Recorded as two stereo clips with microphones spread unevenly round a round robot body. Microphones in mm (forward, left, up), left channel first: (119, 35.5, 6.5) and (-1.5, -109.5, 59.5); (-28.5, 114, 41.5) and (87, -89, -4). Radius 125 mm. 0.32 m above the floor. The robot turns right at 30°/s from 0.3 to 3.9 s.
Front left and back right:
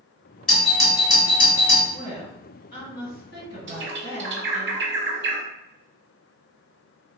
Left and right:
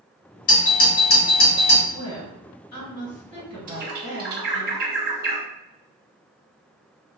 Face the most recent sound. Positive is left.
turn(degrees=-95)